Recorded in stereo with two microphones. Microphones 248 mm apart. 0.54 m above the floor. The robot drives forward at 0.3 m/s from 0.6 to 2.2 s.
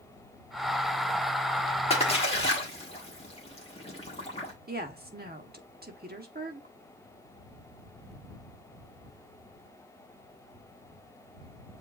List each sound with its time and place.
1.9 s a splash: 25° left (ahead or behind), 1.4 m
4.7 s a woman speaking: 40° right (ahead or behind), 0.9 m